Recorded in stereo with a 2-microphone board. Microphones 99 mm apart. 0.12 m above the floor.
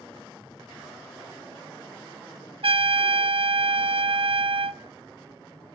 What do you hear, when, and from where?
2.6 s a trumpet: 65° right (ahead or behind), 0.5 m